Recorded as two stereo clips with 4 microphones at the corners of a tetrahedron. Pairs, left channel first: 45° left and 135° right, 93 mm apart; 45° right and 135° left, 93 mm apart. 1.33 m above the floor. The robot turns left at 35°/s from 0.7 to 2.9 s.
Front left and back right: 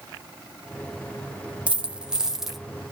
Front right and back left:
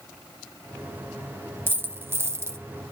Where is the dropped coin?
170° left, 0.6 m; by 2.6 s 140° left, 0.6 m.